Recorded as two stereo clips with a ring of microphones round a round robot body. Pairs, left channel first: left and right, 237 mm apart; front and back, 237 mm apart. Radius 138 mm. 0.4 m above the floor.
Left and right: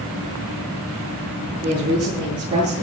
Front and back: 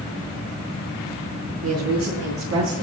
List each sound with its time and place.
1.6 s a woman speaking: 165° right, 8 m; by 2.8 s 155° right, 8.5 m